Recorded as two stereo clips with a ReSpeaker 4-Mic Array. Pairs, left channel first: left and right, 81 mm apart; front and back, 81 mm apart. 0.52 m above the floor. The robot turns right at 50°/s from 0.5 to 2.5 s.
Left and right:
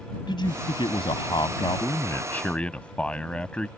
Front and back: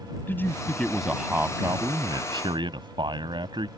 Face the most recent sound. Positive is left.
turn(degrees=165)